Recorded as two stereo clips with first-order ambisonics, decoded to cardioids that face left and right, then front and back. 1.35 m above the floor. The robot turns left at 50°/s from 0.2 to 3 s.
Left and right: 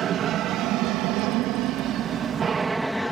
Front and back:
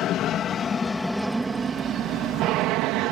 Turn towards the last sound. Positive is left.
turn(degrees=180)